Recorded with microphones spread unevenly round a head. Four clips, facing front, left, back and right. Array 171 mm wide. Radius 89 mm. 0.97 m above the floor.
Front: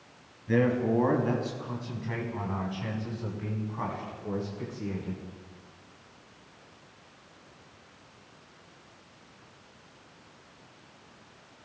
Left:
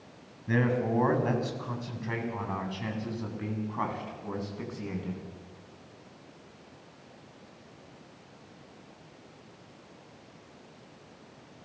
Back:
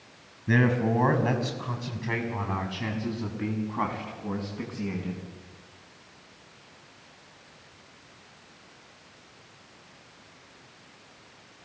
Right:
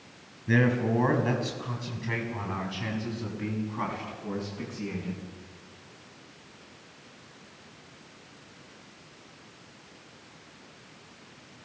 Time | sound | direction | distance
0.5 | a man speaking | 160° right | 7.5 m